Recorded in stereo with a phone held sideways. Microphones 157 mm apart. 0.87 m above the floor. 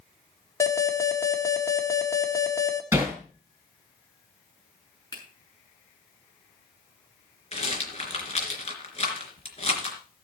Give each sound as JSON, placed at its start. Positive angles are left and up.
{"t": 0.6, "sound": "an alarm", "side_deg": 20, "distance_m": 1.5}
{"t": 2.9, "sound": "hammering", "side_deg": -10, "distance_m": 4.5}
{"t": 5.1, "sound": "a finger snap", "side_deg": 25, "distance_m": 7.0}
{"t": 7.5, "sound": "a rattle", "side_deg": 45, "distance_m": 3.0}